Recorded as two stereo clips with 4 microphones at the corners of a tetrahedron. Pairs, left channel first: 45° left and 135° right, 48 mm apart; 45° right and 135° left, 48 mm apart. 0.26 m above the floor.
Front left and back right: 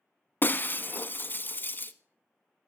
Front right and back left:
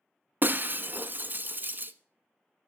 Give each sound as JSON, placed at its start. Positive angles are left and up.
{"t": 0.4, "sound": "breaking glass", "azimuth_deg": 90, "distance_m": 0.6}